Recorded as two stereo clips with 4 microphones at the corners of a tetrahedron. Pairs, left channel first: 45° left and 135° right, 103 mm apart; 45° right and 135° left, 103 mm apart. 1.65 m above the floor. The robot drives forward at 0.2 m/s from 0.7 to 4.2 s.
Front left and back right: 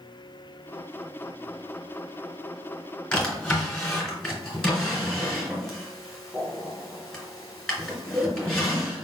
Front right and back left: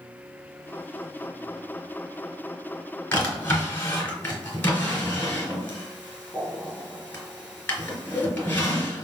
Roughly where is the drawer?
Ahead.